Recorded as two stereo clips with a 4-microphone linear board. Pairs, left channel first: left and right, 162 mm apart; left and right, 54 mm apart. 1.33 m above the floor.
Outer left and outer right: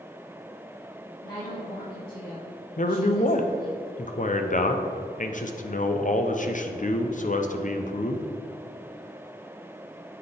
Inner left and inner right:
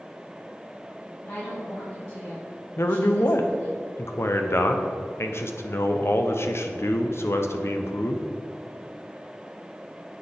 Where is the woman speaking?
80° left, 2.5 m.